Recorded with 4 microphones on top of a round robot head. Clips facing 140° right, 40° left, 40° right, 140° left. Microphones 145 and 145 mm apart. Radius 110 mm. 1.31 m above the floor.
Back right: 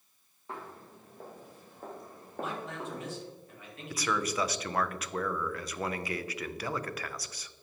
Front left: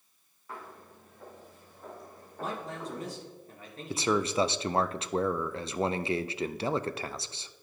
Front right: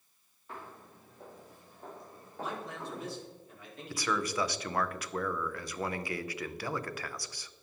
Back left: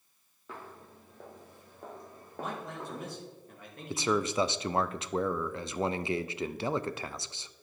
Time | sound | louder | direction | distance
0.5 | footsteps | back right 2 dB, back left 1 dB | 155° left | 2.5 m
2.4 | a man speaking | even, back left 1 dB | 95° left | 2.5 m
3.9 | a man speaking | front left 5 dB, back left 4 dB | 85° left | 0.5 m